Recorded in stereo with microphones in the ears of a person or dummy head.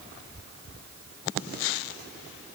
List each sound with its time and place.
Only background noise.